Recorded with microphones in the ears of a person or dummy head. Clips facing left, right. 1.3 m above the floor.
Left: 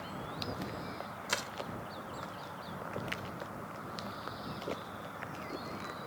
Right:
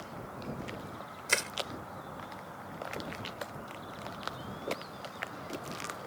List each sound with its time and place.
1.3 s crushing: 40° right (ahead or behind)